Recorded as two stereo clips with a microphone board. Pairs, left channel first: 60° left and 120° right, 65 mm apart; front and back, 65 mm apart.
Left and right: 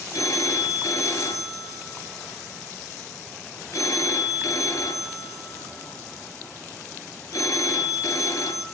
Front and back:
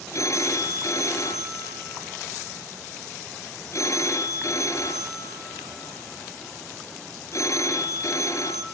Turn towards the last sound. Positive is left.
turn(degrees=35)